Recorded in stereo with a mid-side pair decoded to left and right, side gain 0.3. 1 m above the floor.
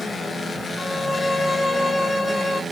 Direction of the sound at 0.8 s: 30° left.